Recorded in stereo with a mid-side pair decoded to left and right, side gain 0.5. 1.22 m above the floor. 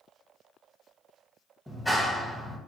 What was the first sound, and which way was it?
A clap, 10° left.